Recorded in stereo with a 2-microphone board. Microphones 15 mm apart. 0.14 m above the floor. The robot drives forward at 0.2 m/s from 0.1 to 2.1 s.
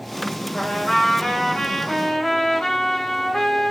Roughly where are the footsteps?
I don't hear footsteps.